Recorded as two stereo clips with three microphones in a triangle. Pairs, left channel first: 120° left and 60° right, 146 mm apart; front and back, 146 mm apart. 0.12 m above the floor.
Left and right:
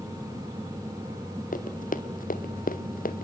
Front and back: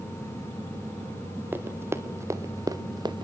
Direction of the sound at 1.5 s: 105° left.